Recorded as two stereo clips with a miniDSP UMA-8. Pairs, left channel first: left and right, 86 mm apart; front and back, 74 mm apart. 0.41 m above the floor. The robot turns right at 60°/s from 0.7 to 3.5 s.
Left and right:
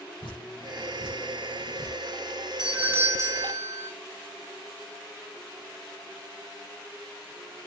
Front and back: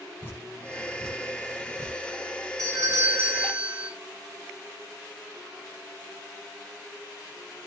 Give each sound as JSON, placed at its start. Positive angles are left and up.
{"t": 0.2, "sound": "dripping", "azimuth_deg": 65, "distance_m": 9.0}
{"t": 2.6, "sound": "a doorbell", "azimuth_deg": -170, "distance_m": 2.5}